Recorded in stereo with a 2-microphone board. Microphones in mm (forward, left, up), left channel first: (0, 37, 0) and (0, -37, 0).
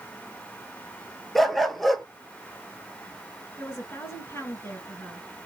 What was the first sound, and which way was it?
A dog barking, centre (ahead or behind).